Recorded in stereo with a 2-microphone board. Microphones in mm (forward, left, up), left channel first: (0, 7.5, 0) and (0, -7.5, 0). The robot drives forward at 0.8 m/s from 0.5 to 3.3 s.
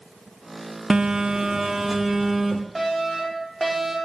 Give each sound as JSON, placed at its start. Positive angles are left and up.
{"t": 0.9, "sound": "a phone buzzing", "side_deg": -70, "distance_m": 0.6}
{"t": 2.8, "sound": "a fire alarm", "side_deg": -5, "distance_m": 4.0}